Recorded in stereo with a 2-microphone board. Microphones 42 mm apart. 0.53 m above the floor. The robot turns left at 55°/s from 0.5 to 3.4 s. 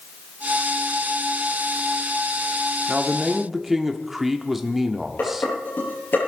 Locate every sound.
2.9 s a man speaking: 20° right (ahead or behind), 1.4 m; by 5.5 s 10° right (ahead or behind), 1.4 m
5.2 s dishes clattering: 55° left (ahead or behind), 8.5 m